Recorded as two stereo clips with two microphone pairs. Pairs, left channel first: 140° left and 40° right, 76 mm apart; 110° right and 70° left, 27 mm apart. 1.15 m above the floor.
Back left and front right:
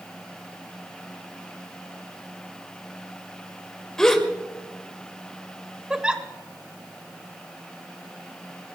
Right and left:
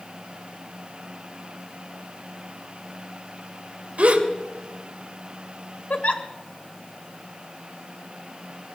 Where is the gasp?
60° left, 3 m.